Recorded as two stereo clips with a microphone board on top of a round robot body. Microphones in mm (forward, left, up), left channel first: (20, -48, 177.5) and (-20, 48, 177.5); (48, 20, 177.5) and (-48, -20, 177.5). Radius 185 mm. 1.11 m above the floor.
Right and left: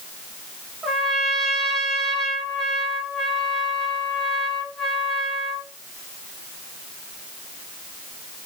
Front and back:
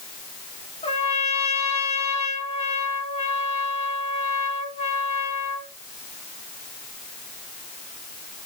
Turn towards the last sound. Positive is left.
turn(degrees=20)